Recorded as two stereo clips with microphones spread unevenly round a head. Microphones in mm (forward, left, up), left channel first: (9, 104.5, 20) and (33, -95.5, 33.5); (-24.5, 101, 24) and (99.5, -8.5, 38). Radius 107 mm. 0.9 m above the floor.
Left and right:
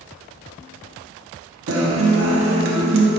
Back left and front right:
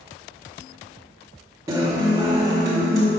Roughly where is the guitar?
Behind right.